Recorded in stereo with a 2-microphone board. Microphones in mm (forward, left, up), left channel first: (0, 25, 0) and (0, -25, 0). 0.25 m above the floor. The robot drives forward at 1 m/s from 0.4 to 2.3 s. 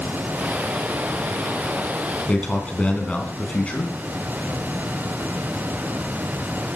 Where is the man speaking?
25° left (ahead or behind), 2.5 m.